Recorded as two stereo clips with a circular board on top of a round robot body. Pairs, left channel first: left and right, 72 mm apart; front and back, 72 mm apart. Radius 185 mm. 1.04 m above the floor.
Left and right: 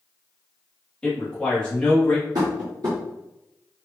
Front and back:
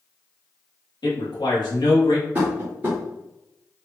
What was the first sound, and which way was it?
A man speaking, 15° left.